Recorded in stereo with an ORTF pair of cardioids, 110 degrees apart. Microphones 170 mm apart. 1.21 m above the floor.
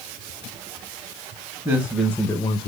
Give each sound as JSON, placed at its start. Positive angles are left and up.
{"t": 1.6, "sound": "a man speaking", "azimuth_deg": -20, "distance_m": 1.3}